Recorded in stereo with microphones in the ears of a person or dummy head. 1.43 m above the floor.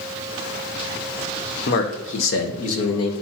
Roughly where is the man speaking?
Left.